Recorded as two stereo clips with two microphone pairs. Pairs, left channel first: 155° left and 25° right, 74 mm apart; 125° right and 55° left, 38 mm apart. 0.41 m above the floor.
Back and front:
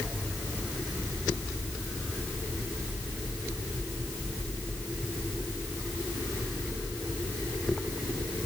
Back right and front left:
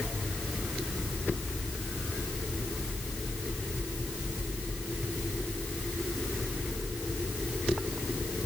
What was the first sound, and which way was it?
Only background noise.